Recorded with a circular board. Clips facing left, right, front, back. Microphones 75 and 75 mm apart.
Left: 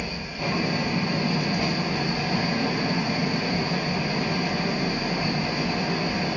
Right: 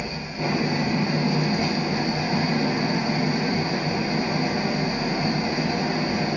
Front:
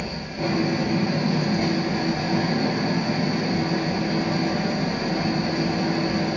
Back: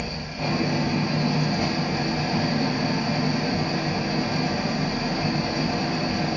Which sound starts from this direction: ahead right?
An engine running, at 0.0 s.